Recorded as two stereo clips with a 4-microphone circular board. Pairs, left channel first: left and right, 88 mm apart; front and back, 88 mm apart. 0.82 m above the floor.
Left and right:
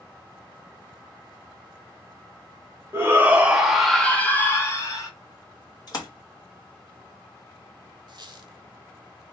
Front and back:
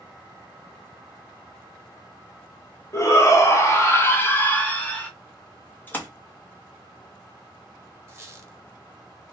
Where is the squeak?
120° right, 0.6 m.